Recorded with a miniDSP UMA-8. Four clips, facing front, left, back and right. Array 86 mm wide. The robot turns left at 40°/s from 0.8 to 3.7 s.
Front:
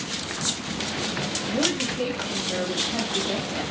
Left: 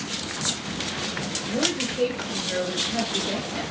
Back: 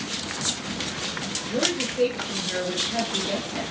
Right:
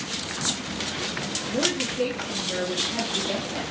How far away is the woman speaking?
About 1.9 m.